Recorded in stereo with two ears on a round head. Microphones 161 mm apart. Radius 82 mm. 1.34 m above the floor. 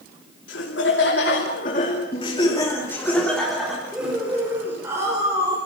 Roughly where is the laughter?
Left.